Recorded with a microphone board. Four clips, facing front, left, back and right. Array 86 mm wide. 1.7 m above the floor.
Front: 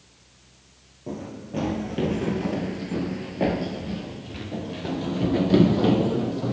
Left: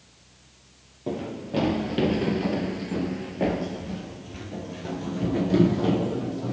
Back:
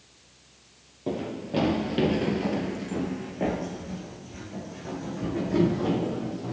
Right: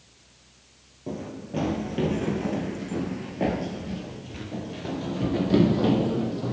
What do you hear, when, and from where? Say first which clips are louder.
1.1 s running footsteps: left 4 dB, back 4 dB; 145° left, 2.0 m; by 6.5 s 20° right, 3 m